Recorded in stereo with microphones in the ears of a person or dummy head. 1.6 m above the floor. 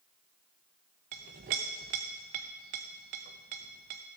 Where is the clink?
25° right (ahead or behind), 0.8 m.